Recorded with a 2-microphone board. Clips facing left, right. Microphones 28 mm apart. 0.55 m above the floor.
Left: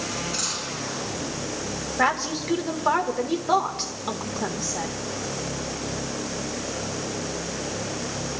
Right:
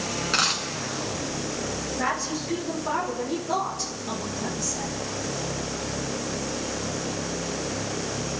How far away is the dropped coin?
About 3.5 m.